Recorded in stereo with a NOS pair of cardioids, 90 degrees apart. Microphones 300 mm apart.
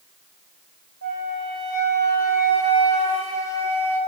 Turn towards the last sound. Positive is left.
turn(degrees=-60)